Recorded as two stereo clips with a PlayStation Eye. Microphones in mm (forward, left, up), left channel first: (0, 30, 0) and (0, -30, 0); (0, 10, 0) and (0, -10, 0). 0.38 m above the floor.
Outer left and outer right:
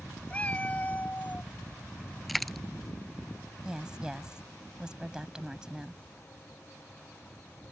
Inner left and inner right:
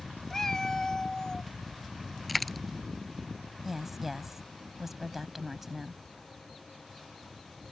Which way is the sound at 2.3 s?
Centre (ahead or behind).